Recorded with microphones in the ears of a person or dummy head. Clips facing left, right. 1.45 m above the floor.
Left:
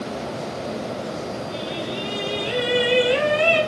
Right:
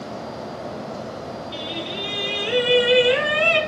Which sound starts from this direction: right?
Singing, at 1.5 s.